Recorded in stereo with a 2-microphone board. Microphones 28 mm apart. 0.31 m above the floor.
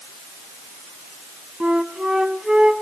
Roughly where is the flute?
Right.